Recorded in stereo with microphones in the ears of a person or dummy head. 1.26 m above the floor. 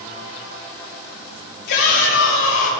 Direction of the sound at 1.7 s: 70° left (ahead or behind).